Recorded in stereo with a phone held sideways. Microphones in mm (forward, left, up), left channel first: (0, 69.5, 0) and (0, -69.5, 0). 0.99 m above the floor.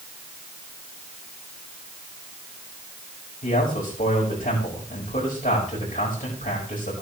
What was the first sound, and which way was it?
A man speaking, 75° left (ahead or behind).